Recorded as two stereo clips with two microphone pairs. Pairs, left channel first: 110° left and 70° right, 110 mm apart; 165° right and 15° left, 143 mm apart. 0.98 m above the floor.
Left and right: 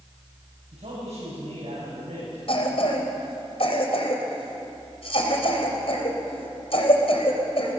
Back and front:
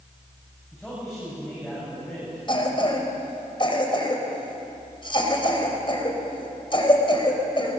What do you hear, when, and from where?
0.7 s a man speaking: 75° right, 7 m
2.5 s a cough: 140° left, 4 m